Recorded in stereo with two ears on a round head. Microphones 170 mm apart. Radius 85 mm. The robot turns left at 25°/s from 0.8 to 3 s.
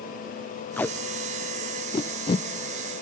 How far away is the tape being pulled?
About 0.5 m.